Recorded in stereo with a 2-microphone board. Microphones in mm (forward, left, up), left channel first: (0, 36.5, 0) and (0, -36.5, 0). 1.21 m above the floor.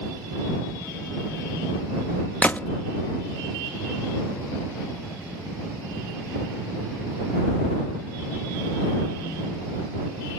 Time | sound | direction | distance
2.4 | a gunshot | 20° left (ahead or behind) | ?